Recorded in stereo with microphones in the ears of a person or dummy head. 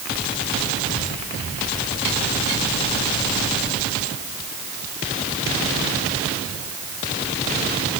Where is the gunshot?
No gunshot in this recording.